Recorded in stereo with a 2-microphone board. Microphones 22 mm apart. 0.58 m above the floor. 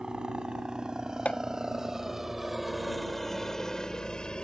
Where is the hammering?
75° left (ahead or behind).